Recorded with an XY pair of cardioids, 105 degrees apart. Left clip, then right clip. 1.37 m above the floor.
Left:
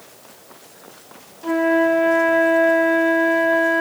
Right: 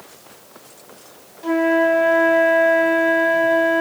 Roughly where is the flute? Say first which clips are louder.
Right 1 dB; ahead.